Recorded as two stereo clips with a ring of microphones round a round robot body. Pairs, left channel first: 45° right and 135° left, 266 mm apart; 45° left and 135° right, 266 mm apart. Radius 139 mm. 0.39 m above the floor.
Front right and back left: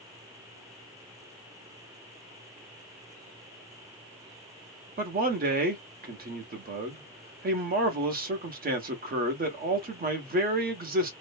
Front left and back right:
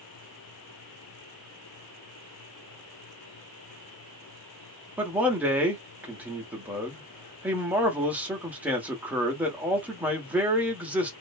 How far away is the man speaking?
About 1.1 m.